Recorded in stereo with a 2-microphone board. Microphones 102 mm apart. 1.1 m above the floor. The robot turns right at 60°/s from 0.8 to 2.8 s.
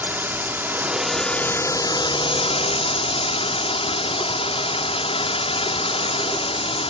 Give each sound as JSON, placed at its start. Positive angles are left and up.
{"t": 0.0, "sound": "a drone", "azimuth_deg": -20}